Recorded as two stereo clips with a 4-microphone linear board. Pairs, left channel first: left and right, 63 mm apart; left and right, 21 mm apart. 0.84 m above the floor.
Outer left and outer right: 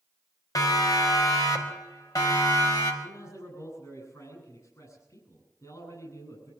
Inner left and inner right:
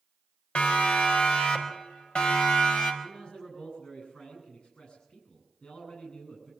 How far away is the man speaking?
About 10 m.